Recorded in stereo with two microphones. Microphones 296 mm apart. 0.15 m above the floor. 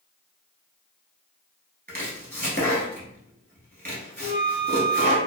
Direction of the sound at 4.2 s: 30° left (ahead or behind).